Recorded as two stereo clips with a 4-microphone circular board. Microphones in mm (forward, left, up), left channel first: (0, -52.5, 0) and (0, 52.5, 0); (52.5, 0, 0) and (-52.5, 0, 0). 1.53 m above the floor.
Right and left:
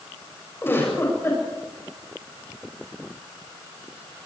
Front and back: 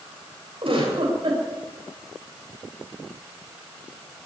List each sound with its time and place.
0.6 s a giggle: 155° right, 7.5 m